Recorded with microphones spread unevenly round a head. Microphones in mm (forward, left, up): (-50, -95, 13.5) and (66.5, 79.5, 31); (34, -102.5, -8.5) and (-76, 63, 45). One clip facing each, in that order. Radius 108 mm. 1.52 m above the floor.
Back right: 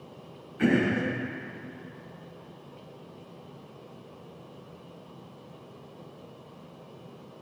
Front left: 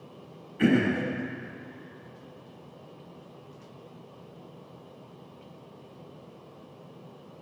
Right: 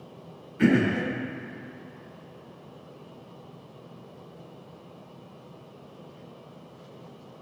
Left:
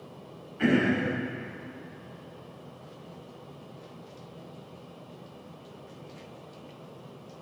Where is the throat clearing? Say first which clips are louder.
Front left 1 dB, right 2 dB; 5° right, 5.5 m.